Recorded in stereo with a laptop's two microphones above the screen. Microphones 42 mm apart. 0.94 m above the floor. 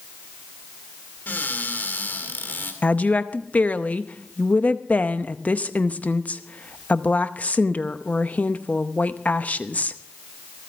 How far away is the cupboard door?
About 2.5 m.